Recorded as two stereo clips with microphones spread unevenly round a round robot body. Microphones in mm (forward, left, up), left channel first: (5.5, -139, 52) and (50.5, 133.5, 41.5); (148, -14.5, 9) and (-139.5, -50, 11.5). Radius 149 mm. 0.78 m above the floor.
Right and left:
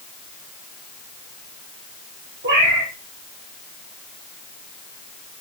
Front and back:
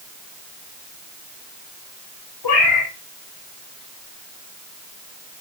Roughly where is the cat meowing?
Ahead left.